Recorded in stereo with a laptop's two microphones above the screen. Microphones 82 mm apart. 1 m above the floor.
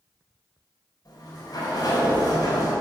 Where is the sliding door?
50° left (ahead or behind), 4 m.